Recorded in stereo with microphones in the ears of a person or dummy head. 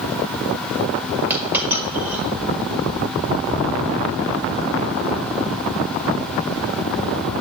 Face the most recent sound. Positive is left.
turn(degrees=-10)  # may be behind; listen again after turning